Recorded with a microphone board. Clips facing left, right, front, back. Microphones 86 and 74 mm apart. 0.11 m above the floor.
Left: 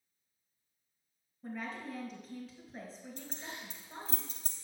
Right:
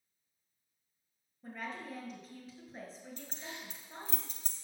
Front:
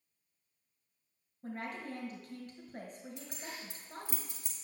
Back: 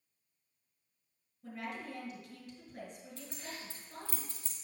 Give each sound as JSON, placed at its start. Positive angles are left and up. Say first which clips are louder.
{"t": 1.4, "sound": "a woman speaking", "louder": "left 1 dB, front 1 dB", "azimuth_deg": 0, "distance_m": 2.0}
{"t": 3.2, "sound": "keys jangling", "louder": "left 2 dB, even", "azimuth_deg": 65, "distance_m": 1.4}